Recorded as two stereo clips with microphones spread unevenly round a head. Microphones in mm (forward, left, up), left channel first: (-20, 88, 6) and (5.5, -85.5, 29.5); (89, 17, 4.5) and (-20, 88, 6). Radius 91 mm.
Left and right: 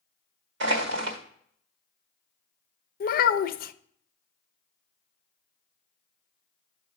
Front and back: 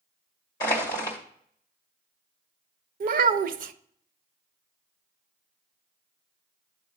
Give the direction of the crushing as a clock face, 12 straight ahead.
3 o'clock.